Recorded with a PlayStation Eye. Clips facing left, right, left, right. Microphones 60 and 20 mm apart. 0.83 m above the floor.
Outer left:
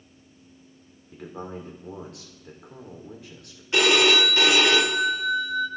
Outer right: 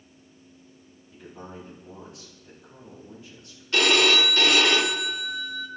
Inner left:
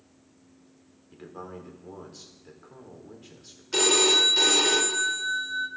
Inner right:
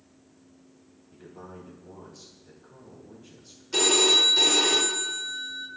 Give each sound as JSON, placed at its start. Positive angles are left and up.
{"t": 1.1, "sound": "a man speaking", "side_deg": 70, "distance_m": 2.0}
{"t": 3.7, "sound": "a phone ringing", "side_deg": 15, "distance_m": 1.4}